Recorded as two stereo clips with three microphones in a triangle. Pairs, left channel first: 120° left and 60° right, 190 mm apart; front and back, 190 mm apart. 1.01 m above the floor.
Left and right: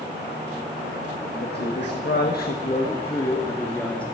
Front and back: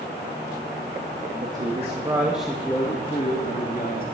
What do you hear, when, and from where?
1.4 s a man speaking: 140° left, 1.6 m; by 4.0 s 35° left, 2.5 m